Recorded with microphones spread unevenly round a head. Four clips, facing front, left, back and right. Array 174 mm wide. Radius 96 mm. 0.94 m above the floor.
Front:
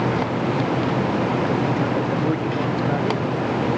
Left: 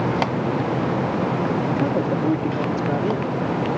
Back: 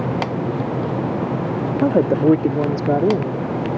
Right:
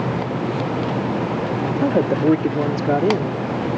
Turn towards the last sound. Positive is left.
turn(degrees=-140)